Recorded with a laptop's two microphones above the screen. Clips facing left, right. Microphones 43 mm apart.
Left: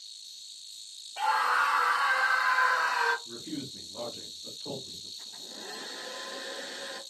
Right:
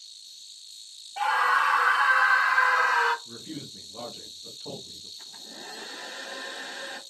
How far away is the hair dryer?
About 1.3 m.